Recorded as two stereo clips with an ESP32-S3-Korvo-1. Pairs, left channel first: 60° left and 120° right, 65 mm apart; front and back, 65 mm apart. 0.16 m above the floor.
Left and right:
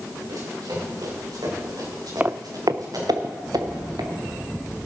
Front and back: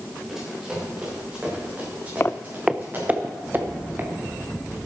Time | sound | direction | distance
0.3 | running footsteps | 100° right | 7.5 m
2.2 | footsteps | 55° right | 0.5 m